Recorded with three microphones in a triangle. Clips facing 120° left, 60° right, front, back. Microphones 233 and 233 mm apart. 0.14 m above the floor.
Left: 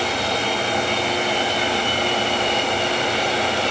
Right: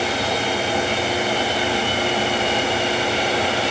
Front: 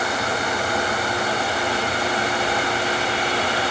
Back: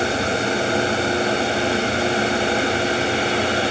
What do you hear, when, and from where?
Only background noise.